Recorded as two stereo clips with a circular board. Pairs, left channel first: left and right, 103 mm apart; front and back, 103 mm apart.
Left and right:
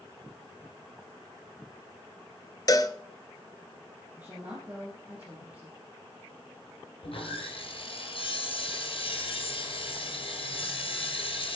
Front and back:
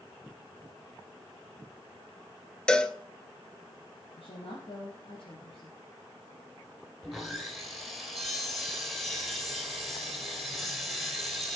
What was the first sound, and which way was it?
A cowbell, 75° left.